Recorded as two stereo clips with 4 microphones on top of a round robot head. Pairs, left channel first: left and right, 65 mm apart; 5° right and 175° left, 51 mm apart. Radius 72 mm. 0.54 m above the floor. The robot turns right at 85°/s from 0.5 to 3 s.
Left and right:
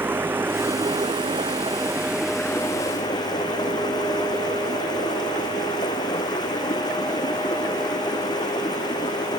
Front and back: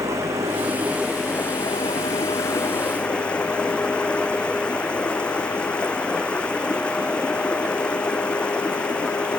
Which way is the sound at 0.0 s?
150° right.